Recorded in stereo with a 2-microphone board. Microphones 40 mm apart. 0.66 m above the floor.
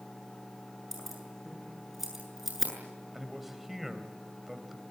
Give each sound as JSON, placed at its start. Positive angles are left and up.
{"t": 0.9, "sound": "keys jangling", "side_deg": -5, "distance_m": 7.5}
{"t": 3.1, "sound": "a man speaking", "side_deg": -5, "distance_m": 3.0}